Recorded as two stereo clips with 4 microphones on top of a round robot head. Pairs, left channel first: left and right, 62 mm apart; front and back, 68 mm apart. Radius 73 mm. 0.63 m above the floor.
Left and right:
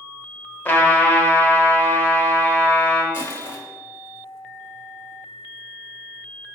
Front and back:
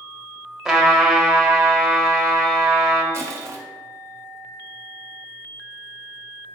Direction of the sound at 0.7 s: 105° left.